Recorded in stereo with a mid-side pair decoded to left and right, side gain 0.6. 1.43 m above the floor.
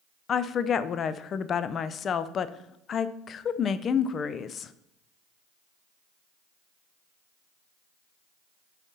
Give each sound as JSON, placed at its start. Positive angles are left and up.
{"t": 0.3, "sound": "a woman speaking", "azimuth_deg": 40, "distance_m": 0.5}